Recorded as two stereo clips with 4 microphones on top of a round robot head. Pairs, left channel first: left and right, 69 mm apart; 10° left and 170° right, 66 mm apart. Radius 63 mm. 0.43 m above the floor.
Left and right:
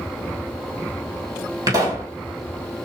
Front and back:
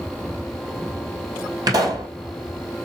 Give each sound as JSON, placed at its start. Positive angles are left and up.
{"t": 1.7, "sound": "a pop", "azimuth_deg": -135, "distance_m": 2.0}